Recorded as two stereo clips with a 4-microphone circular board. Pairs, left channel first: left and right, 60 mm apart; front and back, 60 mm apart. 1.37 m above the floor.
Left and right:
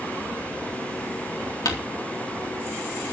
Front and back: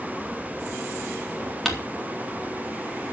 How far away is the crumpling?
About 3.5 m.